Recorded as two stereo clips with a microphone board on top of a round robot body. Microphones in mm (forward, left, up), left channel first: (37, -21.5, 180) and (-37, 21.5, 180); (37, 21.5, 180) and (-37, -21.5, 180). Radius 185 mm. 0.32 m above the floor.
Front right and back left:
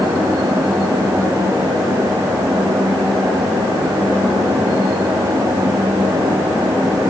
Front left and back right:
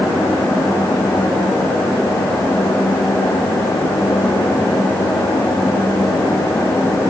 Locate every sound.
Only background noise.